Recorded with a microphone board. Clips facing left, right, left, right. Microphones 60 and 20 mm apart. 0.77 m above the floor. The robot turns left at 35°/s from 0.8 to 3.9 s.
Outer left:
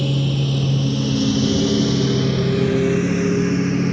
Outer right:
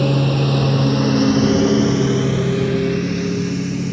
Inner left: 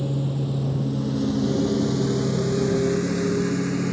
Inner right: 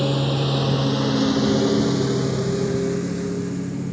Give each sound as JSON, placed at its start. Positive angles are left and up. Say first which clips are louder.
{"t": 0.0, "sound": "a lawn mower", "louder": "outer right 4 dB, inner right 5 dB", "side_deg": -50}